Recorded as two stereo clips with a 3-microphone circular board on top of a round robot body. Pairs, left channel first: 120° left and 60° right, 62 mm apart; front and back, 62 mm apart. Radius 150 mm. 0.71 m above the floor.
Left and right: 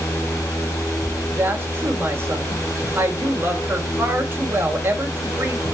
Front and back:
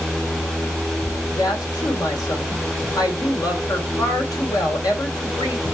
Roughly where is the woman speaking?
Ahead.